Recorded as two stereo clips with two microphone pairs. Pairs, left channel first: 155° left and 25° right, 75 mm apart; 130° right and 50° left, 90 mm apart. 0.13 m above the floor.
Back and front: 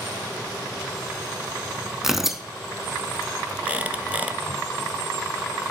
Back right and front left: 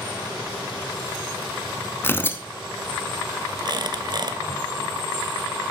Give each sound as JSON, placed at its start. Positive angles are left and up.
{"t": 2.0, "sound": "tearing paper", "azimuth_deg": -100, "distance_m": 0.7}
{"t": 3.6, "sound": "a squeak", "azimuth_deg": 40, "distance_m": 0.8}